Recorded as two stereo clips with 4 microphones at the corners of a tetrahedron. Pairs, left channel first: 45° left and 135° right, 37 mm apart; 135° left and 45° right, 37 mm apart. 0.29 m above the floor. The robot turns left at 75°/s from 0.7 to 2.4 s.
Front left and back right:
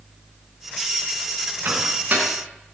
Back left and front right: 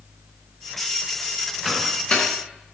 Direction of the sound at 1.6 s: 140° right.